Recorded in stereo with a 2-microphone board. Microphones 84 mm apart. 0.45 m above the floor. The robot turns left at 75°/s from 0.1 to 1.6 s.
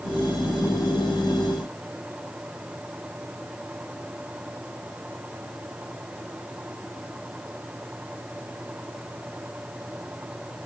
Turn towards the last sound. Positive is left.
No sound to turn to.